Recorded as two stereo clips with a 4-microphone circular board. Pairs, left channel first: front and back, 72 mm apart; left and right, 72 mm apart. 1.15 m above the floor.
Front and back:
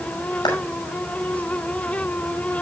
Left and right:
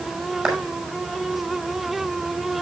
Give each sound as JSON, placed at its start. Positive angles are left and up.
{"t": 0.5, "sound": "a clap", "azimuth_deg": -5, "distance_m": 6.0}